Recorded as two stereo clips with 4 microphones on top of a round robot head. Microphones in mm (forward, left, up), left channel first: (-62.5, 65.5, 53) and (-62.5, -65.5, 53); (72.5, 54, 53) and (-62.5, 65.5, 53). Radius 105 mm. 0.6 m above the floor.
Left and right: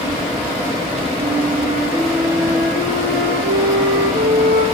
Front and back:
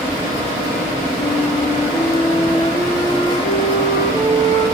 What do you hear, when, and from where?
1.2 s a flute: 75° right, 9.5 m